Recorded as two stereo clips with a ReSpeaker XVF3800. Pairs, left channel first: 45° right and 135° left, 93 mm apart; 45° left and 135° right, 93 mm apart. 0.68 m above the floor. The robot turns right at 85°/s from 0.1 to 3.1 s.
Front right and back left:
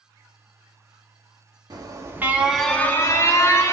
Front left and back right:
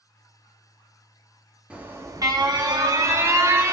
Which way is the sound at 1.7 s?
150° left.